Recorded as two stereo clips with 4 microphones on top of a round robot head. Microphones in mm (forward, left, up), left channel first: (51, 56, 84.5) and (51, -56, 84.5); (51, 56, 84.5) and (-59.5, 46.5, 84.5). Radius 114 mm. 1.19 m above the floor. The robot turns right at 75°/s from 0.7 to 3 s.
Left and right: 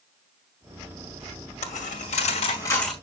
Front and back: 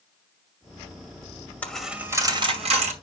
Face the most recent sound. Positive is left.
turn(degrees=-175)